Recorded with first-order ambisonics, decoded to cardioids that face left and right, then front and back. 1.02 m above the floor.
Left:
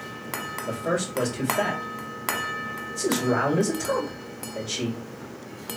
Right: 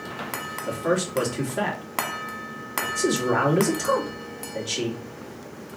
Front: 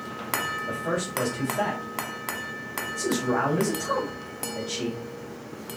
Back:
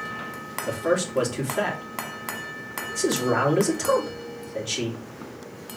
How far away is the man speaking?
About 2 m.